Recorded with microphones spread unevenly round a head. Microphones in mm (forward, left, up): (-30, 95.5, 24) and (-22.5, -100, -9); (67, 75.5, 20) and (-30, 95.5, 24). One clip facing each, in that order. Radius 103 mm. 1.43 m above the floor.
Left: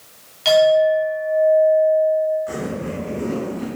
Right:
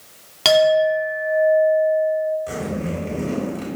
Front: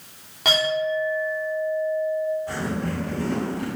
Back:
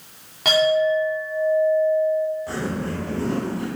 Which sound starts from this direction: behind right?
A zipper, at 2.5 s.